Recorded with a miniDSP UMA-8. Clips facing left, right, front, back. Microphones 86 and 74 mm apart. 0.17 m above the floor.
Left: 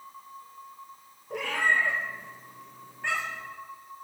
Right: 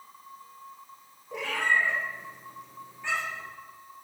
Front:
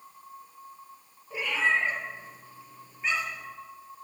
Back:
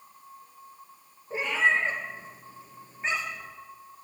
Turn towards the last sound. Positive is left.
turn(degrees=120)